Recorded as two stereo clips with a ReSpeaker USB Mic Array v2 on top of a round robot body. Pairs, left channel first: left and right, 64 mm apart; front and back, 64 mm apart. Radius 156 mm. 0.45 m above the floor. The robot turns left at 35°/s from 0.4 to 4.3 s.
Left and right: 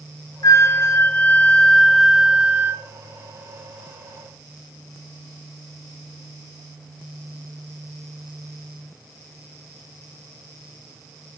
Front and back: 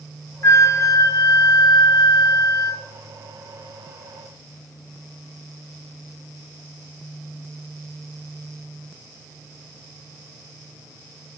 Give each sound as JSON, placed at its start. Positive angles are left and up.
{"t": 0.4, "sound": "a flute", "azimuth_deg": 50, "distance_m": 0.8}